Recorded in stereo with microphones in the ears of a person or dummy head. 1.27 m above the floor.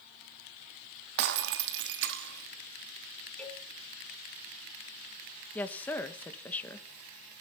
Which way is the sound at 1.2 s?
65° right (ahead or behind).